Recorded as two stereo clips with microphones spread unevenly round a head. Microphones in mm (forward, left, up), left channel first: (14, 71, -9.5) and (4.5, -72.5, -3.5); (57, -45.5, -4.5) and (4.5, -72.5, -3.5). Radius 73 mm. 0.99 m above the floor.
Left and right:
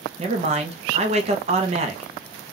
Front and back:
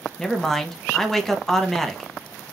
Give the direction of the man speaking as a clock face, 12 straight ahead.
2 o'clock.